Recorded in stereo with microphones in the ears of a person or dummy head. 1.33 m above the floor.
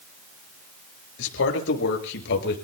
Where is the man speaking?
70° left (ahead or behind), 6 m; by 2.5 s 60° left (ahead or behind), 6.5 m.